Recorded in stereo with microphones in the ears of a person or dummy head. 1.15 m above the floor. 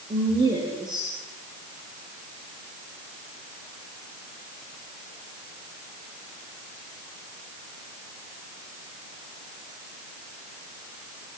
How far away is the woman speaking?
About 3.5 m.